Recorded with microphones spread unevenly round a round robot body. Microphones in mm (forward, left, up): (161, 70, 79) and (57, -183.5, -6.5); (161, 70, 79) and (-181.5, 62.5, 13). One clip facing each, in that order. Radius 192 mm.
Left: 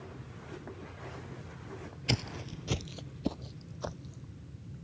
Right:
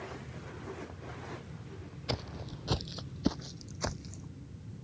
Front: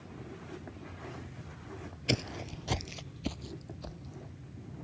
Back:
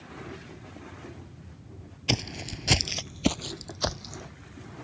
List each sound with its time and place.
2.1 s footsteps: 95° left; by 4.3 s 175° right